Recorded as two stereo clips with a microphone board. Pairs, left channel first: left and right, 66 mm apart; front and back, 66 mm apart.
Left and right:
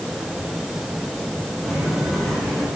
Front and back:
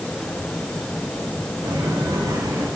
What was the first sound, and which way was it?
Footsteps, straight behind.